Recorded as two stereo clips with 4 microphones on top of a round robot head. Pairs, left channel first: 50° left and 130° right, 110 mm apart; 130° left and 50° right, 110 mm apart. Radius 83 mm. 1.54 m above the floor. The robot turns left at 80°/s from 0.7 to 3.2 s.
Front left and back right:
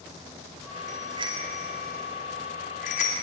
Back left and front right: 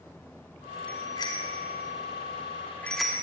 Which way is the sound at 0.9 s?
150° right.